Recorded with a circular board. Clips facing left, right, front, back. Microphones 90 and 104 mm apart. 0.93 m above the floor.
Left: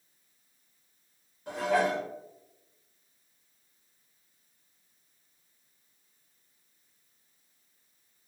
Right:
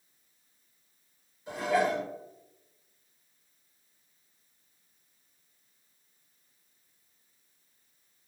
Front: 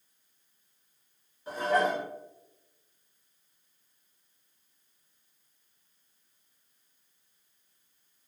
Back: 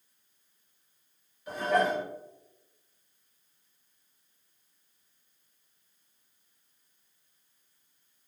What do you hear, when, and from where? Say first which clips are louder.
1.5 s dishes clattering: even, even; 55° left, 1.2 m